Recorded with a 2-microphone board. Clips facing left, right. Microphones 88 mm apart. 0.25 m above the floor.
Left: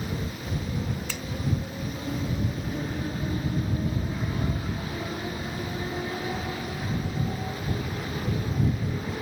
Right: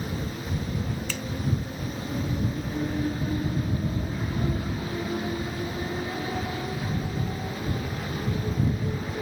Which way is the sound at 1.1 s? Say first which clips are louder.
Right 2 dB; 10° left (ahead or behind).